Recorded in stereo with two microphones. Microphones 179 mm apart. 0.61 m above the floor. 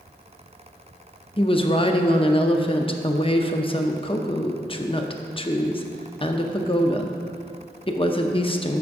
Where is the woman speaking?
30° left (ahead or behind), 0.6 m.